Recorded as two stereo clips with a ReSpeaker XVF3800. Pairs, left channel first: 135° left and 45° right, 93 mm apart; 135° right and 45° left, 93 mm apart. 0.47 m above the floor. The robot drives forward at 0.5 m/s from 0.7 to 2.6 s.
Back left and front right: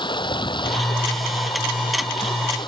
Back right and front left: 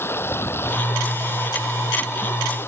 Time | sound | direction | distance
0.0 | running water | 160° left | ?